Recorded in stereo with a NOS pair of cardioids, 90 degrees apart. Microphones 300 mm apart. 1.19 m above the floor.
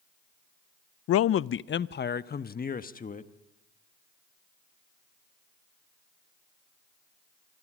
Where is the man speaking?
55° left, 0.5 m; by 3.3 s 25° left, 1.7 m.